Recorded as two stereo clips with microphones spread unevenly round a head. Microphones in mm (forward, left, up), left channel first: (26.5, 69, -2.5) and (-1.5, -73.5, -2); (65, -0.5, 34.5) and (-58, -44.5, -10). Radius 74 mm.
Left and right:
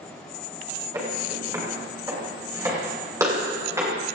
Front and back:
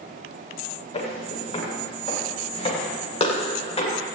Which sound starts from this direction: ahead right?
Footsteps, at 0.9 s.